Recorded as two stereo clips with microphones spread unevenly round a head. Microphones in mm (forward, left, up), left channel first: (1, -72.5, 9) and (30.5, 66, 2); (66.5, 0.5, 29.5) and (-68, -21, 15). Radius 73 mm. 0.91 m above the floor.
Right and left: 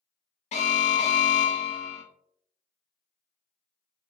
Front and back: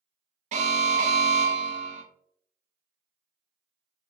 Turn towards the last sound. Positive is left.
turn(degrees=-145)